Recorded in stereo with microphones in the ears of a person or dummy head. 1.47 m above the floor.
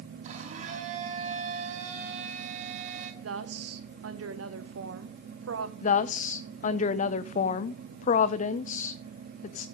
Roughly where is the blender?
Right.